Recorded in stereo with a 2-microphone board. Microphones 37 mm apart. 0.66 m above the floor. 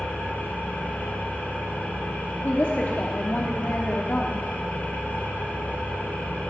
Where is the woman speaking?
55° left (ahead or behind), 1.1 m.